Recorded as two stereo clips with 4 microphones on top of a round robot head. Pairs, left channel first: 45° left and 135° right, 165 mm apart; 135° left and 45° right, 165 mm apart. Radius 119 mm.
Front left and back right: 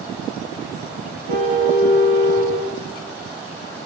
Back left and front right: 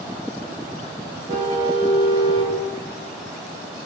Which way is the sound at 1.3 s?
105° right.